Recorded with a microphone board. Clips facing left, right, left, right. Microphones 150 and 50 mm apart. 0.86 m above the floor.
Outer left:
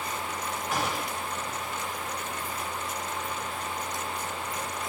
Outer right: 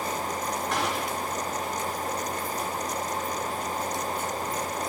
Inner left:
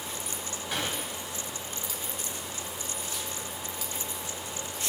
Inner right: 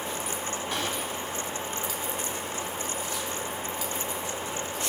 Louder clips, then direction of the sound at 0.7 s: Even, inner left 1 dB; 5° left (ahead or behind).